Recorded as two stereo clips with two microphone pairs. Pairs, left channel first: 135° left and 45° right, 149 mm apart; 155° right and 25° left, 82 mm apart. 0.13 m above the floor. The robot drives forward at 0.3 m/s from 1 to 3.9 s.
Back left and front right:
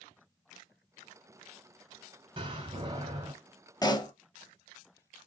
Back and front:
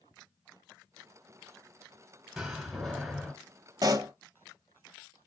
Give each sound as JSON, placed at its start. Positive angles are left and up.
{"t": 2.4, "sound": "a door slam", "azimuth_deg": -50, "distance_m": 1.4}
{"t": 3.8, "sound": "a pop", "azimuth_deg": 70, "distance_m": 0.5}